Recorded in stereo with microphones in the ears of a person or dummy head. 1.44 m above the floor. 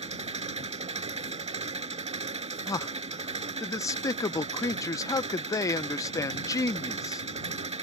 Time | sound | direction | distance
0.0 | an engine running | 30° right (ahead or behind) | ?
2.7 | a man speaking | 20° left (ahead or behind) | ?